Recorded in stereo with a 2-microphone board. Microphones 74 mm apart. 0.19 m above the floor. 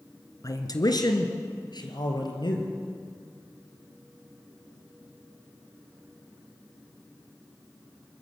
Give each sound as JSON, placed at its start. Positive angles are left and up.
{"t": 0.4, "sound": "a man speaking", "side_deg": 50, "distance_m": 2.5}